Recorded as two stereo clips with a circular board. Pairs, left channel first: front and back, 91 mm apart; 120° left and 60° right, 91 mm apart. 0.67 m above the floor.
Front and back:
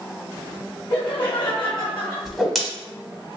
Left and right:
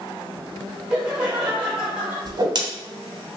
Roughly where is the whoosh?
Right.